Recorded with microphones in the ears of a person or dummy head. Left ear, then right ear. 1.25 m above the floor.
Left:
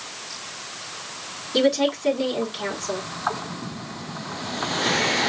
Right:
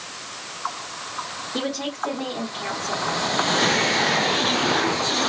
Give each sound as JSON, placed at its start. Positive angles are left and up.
{"t": 1.5, "sound": "a woman speaking", "side_deg": 70, "distance_m": 3.0}